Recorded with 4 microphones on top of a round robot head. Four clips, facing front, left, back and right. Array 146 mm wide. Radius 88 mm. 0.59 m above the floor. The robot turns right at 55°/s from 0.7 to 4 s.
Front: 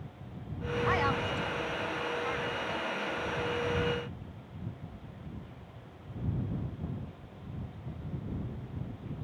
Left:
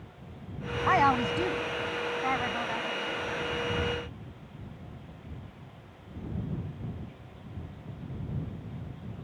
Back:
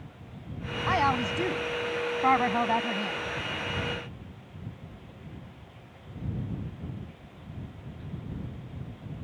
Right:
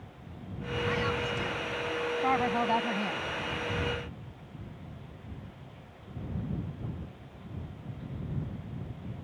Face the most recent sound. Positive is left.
turn(degrees=-75)